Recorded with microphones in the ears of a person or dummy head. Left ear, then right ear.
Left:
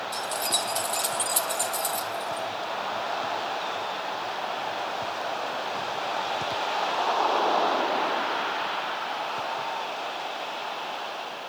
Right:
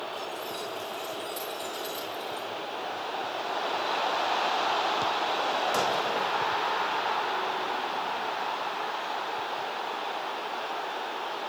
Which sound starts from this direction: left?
Keys jangling, at 0.1 s.